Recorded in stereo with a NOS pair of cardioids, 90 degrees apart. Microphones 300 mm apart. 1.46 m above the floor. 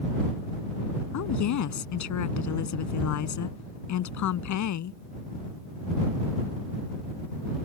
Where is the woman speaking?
70° left.